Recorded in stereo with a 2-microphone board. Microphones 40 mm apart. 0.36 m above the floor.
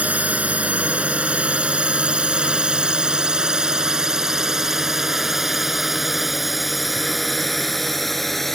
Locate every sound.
0.0 s a drone: 35° right (ahead or behind); by 8.6 s 5° left (ahead or behind)